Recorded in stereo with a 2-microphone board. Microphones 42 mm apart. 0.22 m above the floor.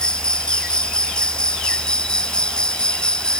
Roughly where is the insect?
Left.